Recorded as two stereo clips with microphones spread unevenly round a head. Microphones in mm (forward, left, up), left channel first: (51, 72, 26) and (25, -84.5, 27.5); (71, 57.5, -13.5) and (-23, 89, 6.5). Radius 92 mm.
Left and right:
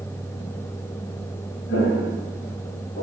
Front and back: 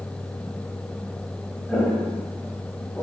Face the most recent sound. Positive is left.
turn(degrees=50)